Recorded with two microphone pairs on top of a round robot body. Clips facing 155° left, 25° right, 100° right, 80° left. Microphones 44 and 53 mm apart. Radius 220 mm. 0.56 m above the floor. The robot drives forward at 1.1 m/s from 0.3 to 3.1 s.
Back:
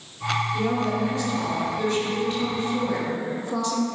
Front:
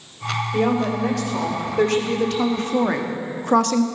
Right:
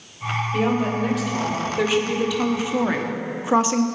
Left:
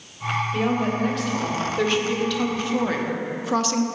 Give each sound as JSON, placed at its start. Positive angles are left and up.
{"t": 0.5, "sound": "a woman speaking", "azimuth_deg": -10, "distance_m": 4.0}